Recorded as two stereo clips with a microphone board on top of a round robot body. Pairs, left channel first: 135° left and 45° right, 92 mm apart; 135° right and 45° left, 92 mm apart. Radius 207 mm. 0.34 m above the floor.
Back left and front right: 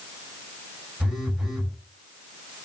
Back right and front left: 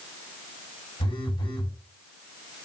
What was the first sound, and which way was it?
A phone buzzing, 135° right.